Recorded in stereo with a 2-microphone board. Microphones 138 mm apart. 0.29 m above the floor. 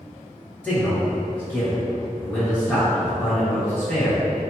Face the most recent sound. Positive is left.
turn(degrees=10)  # may be behind; listen again after turning